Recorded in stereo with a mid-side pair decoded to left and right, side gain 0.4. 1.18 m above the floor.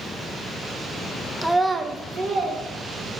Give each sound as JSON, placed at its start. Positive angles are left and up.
{"t": 1.4, "sound": "a child speaking", "azimuth_deg": 5, "distance_m": 0.5}